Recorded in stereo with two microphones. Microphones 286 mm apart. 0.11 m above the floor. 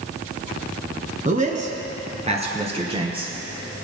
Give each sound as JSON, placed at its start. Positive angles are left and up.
{"t": 1.2, "sound": "a man speaking", "side_deg": -25, "distance_m": 1.4}